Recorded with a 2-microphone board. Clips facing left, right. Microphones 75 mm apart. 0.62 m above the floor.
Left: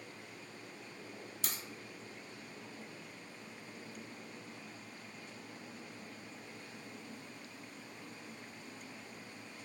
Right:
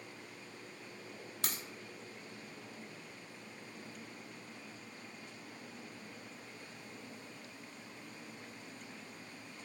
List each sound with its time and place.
1.4 s a crack: 65° right (ahead or behind), 0.8 m